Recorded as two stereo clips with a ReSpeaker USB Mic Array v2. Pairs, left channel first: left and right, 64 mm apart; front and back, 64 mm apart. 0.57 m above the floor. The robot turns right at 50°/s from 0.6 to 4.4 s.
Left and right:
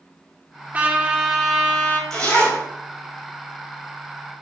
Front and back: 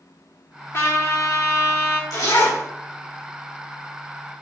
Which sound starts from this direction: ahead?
A zipper, at 2.1 s.